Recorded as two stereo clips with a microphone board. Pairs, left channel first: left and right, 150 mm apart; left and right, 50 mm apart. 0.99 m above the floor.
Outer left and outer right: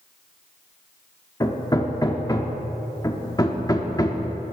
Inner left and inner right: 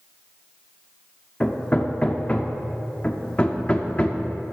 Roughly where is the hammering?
Left.